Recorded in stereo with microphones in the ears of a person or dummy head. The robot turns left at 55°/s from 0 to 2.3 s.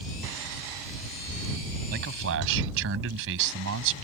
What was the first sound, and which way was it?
A man speaking, 50° right (ahead or behind).